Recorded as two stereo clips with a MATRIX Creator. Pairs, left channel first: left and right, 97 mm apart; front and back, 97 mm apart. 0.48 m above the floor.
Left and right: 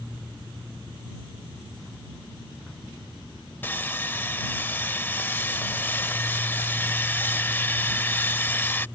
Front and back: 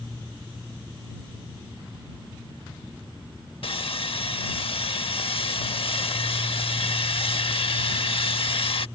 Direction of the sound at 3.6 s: 20° left.